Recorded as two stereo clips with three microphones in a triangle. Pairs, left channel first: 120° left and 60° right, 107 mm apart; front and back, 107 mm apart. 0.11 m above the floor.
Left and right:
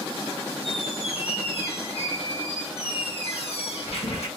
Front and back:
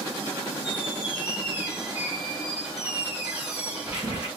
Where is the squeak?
105° left, 1.6 m.